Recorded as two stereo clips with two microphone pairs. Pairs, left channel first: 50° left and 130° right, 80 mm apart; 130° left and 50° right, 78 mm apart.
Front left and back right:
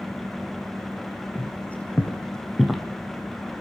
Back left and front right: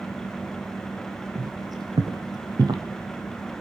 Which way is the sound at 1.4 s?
15° right.